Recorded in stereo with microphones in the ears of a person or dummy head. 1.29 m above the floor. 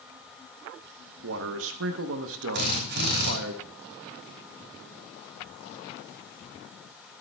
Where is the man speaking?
80° right, 0.9 m.